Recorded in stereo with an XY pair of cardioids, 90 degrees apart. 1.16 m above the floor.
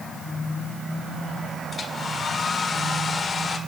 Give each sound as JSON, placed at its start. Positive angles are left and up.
{"t": 1.7, "sound": "a hair dryer", "azimuth_deg": 45, "distance_m": 1.8}